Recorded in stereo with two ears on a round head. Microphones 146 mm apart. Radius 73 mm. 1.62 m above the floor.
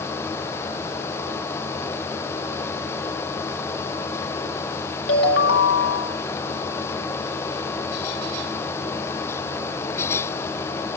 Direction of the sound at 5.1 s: 70° left (ahead or behind).